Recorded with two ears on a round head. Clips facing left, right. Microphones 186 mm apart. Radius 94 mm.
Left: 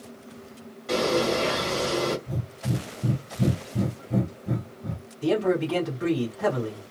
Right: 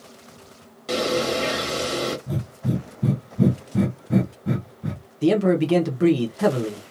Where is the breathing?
75° right (ahead or behind), 0.6 m.